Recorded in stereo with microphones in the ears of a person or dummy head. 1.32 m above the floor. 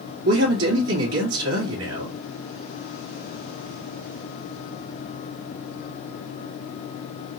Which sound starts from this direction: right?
A man speaking, at 0.2 s.